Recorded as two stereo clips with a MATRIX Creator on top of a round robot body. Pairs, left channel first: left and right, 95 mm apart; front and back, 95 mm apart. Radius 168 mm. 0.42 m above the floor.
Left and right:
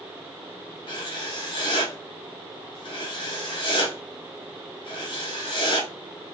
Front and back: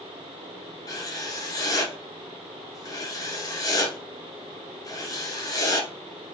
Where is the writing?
55° left, 1.2 m.